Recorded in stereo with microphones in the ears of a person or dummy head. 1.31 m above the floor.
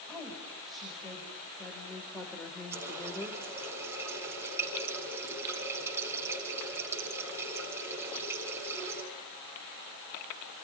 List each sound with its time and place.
0.1 s a woman speaking: 5° right (ahead or behind), 5 m; by 3.4 s 10° left (ahead or behind), 4 m
2.7 s a running tap: 15° right (ahead or behind), 7 m